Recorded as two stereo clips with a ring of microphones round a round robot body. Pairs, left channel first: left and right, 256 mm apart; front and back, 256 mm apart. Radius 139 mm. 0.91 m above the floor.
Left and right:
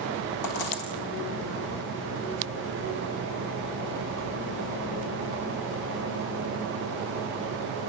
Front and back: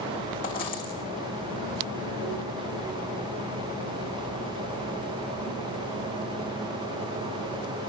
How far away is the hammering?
I don't hear hammering.